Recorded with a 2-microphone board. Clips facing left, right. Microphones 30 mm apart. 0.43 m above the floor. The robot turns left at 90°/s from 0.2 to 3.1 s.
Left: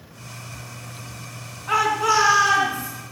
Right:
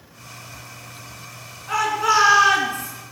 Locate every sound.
1.7 s a shout: 25° left, 4.5 m; by 2.9 s 85° right, 4.5 m